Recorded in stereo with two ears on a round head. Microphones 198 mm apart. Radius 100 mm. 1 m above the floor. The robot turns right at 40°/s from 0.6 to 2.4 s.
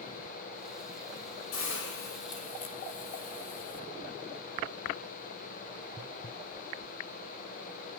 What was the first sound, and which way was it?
A hiss, 110° left.